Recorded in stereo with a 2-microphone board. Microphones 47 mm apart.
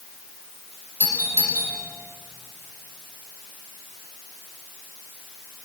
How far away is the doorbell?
About 6.5 m.